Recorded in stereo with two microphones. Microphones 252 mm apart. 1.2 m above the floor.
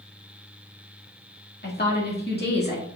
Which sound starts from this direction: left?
A woman speaking, at 1.6 s.